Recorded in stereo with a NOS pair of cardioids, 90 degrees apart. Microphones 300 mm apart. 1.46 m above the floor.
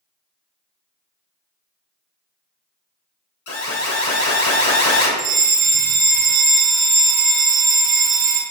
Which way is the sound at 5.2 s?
30° right.